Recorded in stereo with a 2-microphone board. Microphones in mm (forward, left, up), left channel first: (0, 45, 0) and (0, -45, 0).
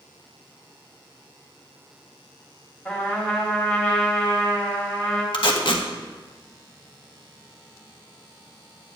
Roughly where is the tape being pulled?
Left.